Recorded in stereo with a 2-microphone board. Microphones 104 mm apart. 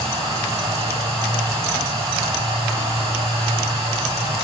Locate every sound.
0.0 s running water: 70° right (ahead or behind), 4.5 m